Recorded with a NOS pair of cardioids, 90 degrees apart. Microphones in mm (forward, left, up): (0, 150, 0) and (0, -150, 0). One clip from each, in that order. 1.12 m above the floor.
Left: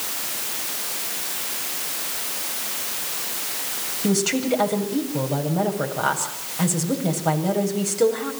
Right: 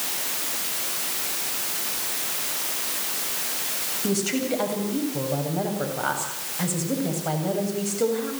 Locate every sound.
4.0 s a woman speaking: 30° left, 7.5 m